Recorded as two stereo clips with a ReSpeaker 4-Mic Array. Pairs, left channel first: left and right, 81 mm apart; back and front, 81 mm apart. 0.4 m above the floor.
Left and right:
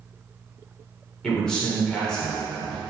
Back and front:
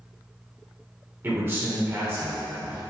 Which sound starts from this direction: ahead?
A man speaking, at 1.2 s.